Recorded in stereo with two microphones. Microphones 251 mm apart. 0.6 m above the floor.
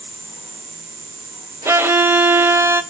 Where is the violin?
10° right (ahead or behind), 0.6 m.